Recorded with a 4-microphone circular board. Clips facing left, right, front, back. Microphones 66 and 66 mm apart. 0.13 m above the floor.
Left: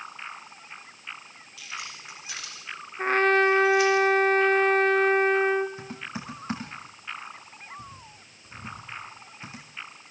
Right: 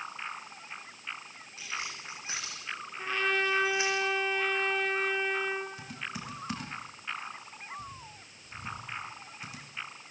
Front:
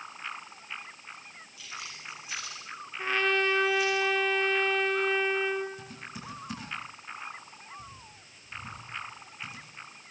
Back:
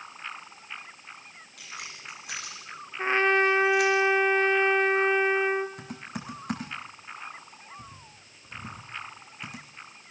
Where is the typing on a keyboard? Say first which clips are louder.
Left 3 dB, back 4 dB; 150° left, 5.5 m.